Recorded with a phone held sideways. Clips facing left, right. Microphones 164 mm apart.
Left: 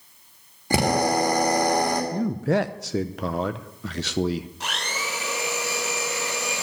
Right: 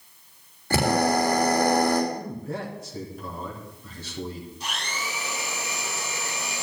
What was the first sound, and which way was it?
A drill, 15° left (ahead or behind).